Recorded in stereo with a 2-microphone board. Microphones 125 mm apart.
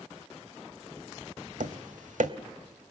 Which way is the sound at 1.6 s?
80° right.